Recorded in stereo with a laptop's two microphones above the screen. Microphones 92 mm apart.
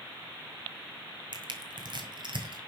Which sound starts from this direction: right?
Crushing, at 1.3 s.